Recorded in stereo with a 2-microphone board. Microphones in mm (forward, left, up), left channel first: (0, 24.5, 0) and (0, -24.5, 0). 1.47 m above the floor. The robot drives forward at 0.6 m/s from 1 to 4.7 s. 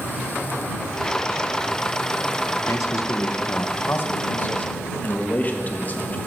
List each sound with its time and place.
2.7 s a man speaking: 75° left (ahead or behind), 0.9 m; by 6.2 s 35° left (ahead or behind), 1.5 m